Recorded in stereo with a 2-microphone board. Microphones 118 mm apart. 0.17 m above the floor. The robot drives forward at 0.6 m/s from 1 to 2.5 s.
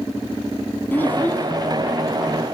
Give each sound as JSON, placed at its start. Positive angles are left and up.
{"t": 0.9, "sound": "a child speaking", "side_deg": 15, "distance_m": 1.2}